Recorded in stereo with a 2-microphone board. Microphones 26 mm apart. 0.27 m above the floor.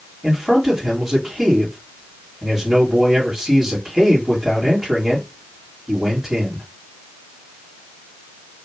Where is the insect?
I don't hear an insect.